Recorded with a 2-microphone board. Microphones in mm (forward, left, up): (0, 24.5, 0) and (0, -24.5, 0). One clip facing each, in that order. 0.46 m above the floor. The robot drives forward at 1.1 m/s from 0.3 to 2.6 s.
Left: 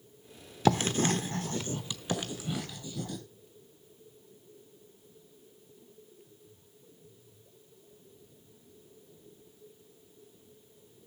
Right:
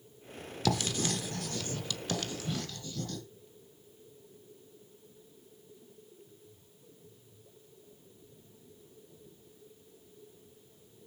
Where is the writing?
30° left (ahead or behind), 0.9 m; by 3.2 s 15° left (ahead or behind), 1.9 m.